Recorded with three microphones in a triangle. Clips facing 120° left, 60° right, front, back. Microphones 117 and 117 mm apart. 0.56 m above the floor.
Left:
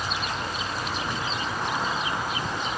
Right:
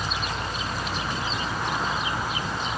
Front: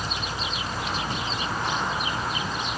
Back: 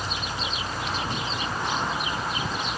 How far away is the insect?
About 4 m.